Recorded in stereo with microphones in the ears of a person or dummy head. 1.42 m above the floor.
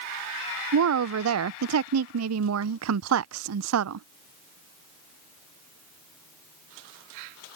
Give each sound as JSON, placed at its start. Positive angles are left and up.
{"t": 0.7, "sound": "a woman speaking", "side_deg": -75}